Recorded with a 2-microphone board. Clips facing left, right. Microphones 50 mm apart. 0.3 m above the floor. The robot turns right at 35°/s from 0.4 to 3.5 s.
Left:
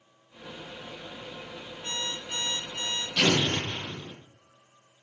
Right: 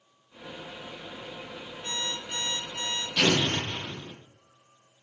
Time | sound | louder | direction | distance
1.8 | an alarm clock | even | 155° left | 1.8 m
3.2 | an explosion | even | 5° right (ahead or behind) | 1.5 m